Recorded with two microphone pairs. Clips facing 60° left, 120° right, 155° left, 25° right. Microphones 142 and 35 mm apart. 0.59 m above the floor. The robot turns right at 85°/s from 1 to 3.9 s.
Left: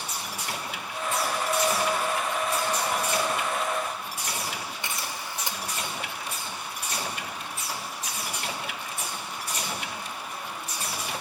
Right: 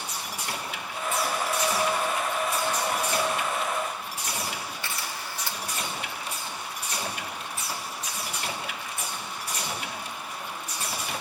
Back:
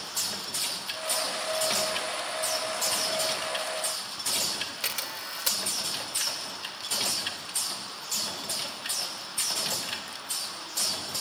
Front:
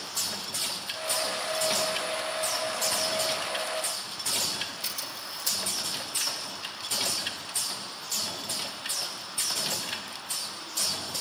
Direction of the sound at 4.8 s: 130° left.